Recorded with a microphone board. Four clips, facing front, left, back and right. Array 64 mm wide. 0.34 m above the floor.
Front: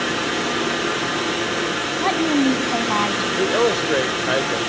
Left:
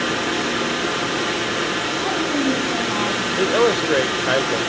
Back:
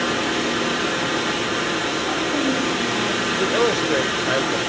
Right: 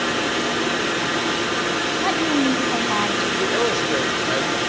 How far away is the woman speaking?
About 2.5 m.